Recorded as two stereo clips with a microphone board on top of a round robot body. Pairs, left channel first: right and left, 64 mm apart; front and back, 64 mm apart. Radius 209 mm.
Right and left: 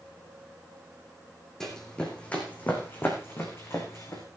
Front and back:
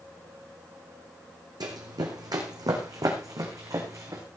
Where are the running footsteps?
175° right, 2.5 m; by 4.2 s 140° right, 4 m.